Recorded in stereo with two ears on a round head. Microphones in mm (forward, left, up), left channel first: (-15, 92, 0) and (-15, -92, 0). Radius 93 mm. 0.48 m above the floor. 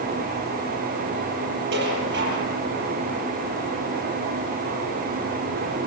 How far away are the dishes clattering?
About 7.5 m.